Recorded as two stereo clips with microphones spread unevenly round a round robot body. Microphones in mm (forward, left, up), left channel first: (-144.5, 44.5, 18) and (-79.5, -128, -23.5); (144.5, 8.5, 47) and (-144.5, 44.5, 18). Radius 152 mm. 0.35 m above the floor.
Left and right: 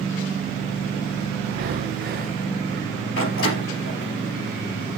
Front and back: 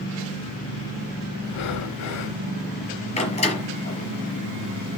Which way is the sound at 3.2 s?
60° left.